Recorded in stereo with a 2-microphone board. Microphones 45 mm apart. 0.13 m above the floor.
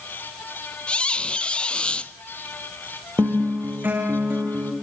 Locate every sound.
0.9 s a squeak: 25° left (ahead or behind), 0.7 m
3.2 s a guitar: 50° right (ahead or behind), 4.5 m